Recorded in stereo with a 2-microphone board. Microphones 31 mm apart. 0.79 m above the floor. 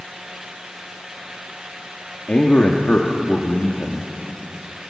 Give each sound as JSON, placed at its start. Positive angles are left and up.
{"t": 2.3, "sound": "a man speaking", "side_deg": 50, "distance_m": 1.5}